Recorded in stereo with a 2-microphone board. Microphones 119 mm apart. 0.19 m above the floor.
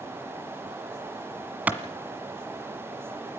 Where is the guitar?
No guitar in this recording.